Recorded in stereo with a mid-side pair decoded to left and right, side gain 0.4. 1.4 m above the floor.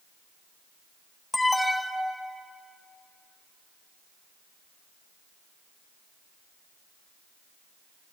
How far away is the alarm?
About 1.2 m.